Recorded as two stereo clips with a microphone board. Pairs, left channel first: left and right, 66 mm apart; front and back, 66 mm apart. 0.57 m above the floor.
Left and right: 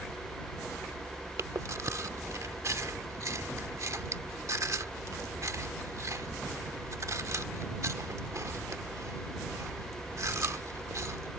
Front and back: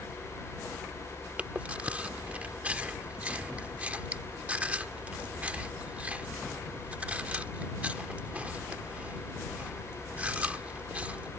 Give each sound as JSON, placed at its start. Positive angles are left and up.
{"t": 1.4, "sound": "chewing", "azimuth_deg": -115}